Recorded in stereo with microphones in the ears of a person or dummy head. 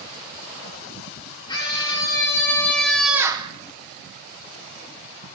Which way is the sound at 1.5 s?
25° left (ahead or behind).